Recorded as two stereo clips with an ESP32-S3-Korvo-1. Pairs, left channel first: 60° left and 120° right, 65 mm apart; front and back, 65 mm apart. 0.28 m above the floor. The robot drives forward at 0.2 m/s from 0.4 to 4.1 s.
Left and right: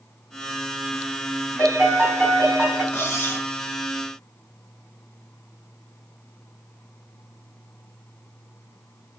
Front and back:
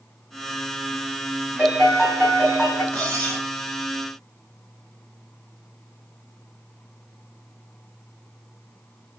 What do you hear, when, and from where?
1.6 s a piano: 105° right, 1.9 m; by 2.8 s 115° right, 2 m
2.9 s cutlery clinking: 55° left, 0.9 m; by 3.5 s 65° left, 0.8 m